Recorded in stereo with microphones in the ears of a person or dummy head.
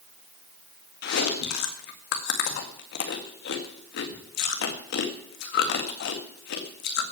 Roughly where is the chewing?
Left.